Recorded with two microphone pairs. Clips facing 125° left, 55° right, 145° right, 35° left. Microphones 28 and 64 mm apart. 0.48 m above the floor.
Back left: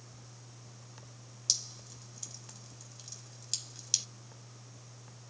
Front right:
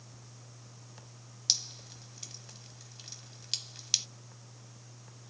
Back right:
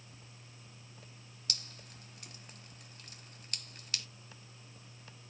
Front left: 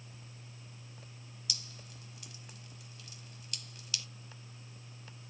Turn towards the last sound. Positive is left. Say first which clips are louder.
# front right 3 dB, back right 2 dB
turn(degrees=-105)